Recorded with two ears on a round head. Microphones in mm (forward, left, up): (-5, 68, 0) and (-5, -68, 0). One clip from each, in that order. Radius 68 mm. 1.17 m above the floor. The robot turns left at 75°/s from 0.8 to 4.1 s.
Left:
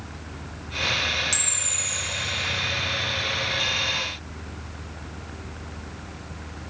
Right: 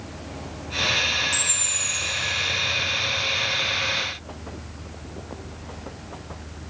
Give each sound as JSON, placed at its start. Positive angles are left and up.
{"t": 1.3, "sound": "a camera shutter", "azimuth_deg": 25, "distance_m": 3.0}